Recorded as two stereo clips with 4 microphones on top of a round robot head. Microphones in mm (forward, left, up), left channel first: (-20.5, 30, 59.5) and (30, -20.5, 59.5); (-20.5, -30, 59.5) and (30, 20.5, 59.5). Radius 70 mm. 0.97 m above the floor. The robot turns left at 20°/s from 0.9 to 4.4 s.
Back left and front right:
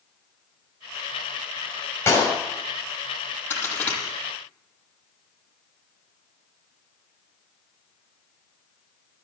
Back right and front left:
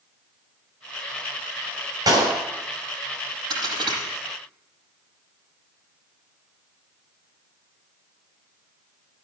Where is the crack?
75° left, 8 m; by 4.0 s 65° left, 8 m.